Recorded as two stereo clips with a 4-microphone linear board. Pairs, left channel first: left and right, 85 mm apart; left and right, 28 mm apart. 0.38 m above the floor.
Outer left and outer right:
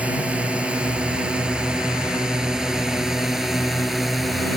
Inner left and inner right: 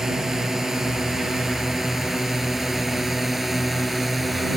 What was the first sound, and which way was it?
A drone, 15° right (ahead or behind).